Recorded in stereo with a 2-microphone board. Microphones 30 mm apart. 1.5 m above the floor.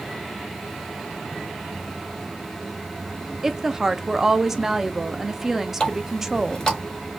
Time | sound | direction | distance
3.4 | a woman speaking | 15° right (ahead or behind) | 0.6 m
5.8 | a running tap | 20° left (ahead or behind) | 3.5 m